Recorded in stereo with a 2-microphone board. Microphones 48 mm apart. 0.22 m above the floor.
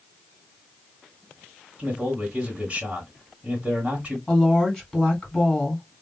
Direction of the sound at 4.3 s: 10° left (ahead or behind).